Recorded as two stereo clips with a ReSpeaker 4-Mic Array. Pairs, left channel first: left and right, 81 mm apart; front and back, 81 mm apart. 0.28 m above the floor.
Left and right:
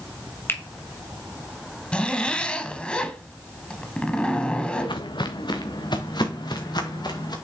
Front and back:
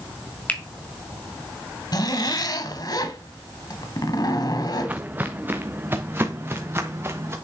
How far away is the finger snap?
About 1.5 m.